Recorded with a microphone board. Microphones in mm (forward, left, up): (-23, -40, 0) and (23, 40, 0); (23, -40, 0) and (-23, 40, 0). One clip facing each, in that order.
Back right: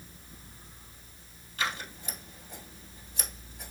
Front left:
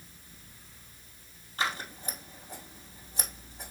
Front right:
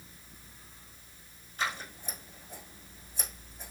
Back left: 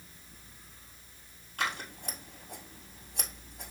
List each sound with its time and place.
1.6 s scissors: 110° left, 1.8 m